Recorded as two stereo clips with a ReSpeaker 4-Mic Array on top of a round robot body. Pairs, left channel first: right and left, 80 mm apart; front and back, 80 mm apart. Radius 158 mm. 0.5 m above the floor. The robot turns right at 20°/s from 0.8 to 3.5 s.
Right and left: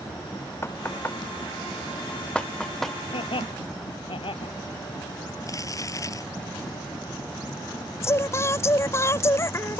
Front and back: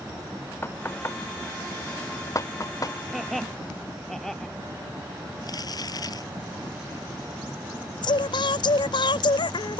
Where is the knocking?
50° right; by 3.0 s 5° right.